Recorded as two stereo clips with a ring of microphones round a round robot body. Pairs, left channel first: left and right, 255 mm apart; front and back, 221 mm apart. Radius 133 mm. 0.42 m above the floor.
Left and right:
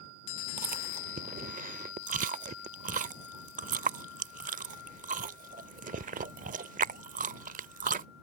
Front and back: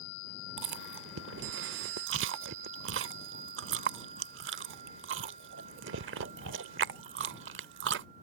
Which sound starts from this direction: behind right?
Chewing, at 0.6 s.